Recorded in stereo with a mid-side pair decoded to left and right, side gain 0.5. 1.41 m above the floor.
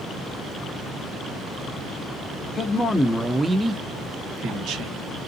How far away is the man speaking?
About 1.0 m.